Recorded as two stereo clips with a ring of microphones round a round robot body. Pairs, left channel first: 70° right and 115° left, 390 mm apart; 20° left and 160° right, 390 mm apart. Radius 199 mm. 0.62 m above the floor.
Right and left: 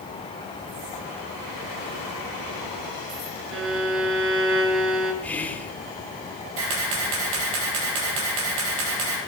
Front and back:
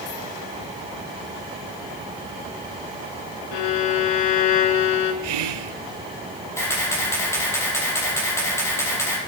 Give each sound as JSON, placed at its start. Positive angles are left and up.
{"t": 3.5, "sound": "a violin", "azimuth_deg": 55, "distance_m": 2.0}
{"t": 5.2, "sound": "whispering", "azimuth_deg": -155, "distance_m": 1.9}
{"t": 6.6, "sound": "a camera shutter", "azimuth_deg": 105, "distance_m": 6.0}